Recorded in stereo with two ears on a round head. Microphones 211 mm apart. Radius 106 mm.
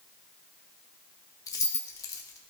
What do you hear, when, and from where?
1.5 s keys jangling: 15° left (ahead or behind), 0.7 m